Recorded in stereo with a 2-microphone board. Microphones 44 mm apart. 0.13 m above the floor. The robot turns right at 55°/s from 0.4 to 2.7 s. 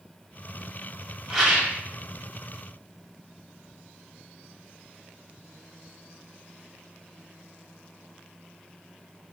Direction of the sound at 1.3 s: 10° right (ahead or behind).